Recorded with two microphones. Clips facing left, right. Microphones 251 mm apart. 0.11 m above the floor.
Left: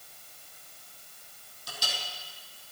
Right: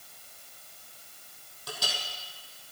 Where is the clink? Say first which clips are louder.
Right 3 dB; 65° right (ahead or behind), 2.5 m.